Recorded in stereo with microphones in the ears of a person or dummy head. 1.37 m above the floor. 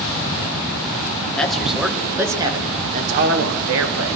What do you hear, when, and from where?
1.4 s a man speaking: 5° left (ahead or behind), 1.6 m; by 4.2 s 70° right (ahead or behind), 1.2 m